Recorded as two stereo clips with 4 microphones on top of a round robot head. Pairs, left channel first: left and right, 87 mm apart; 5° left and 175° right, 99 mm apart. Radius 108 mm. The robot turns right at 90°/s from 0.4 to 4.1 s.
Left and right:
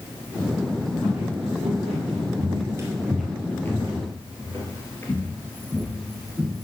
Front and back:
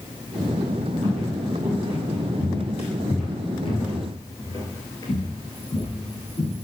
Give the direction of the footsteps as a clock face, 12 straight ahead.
6 o'clock.